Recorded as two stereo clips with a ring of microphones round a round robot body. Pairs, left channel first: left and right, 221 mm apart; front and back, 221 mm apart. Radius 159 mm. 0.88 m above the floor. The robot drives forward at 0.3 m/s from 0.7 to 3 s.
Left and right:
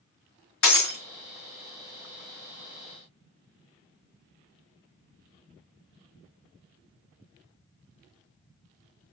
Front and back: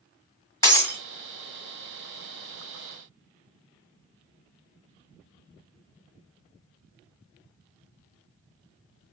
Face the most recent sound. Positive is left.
turn(degrees=105)